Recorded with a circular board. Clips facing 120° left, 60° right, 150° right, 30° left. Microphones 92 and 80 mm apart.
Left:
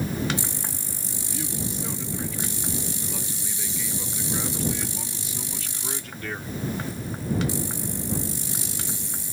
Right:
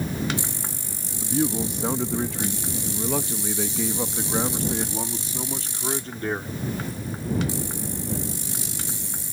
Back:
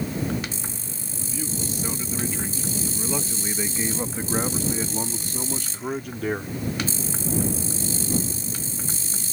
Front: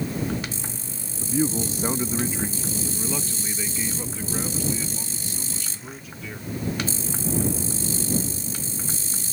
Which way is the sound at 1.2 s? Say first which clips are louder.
Right 9 dB, front 8 dB; 15° right.